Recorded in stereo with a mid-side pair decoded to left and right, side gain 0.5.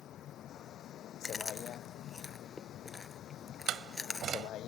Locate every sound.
0.0 s a vehicle: 60° left; by 4.7 s 65° left
1.2 s chewing: 25° left
3.7 s a door slam: 60° right